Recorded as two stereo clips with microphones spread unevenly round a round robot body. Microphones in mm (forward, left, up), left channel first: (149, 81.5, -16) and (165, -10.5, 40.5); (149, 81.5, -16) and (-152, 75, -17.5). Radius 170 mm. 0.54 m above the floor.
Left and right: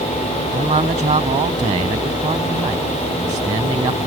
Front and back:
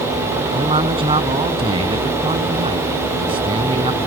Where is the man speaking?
105° right.